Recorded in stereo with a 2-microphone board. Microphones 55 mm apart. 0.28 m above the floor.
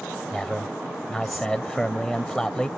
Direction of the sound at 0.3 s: 10° left (ahead or behind).